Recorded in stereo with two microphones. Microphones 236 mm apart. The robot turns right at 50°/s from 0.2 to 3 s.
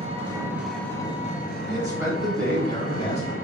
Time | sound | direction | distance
0.0 | an engine running | 25° right | 0.9 m
1.7 | a man speaking | 30° right | 1.3 m